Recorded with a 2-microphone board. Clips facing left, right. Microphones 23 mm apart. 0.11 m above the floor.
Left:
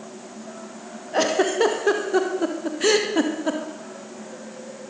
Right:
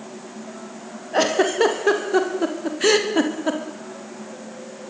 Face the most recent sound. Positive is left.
turn(degrees=-10)  # may be behind; listen again after turning